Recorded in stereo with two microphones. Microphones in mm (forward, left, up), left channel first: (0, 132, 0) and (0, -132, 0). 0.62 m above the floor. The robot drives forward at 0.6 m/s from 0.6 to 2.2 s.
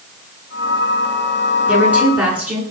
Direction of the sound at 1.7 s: 5° right (ahead or behind).